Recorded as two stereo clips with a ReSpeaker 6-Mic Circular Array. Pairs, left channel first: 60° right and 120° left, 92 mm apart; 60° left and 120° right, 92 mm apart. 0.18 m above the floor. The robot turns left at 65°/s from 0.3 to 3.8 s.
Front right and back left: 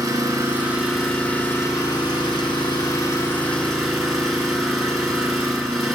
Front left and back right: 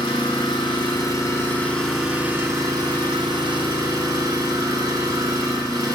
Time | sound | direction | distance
0.0 | an engine running | 75° left | 2.5 m